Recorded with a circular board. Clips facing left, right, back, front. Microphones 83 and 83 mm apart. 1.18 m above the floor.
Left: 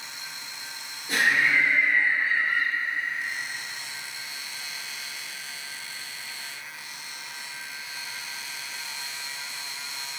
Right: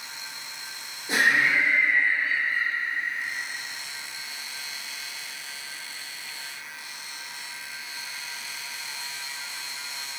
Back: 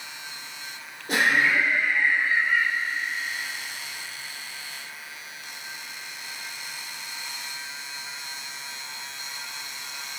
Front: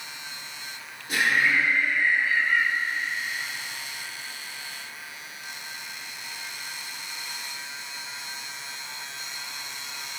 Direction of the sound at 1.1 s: 155° right.